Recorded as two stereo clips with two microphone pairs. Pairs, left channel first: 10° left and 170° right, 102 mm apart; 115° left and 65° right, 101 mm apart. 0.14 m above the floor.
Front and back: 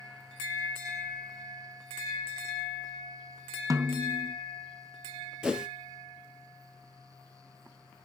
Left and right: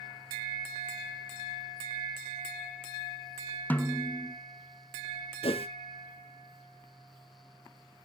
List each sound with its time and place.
3.7 s a snare drum: 170° left, 0.5 m
5.4 s a whoosh: 105° left, 0.7 m